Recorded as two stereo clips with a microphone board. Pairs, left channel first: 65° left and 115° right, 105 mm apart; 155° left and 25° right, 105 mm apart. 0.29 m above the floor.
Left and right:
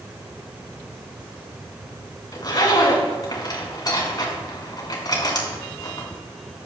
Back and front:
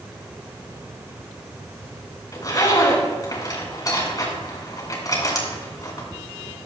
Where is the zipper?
110° left, 3 m.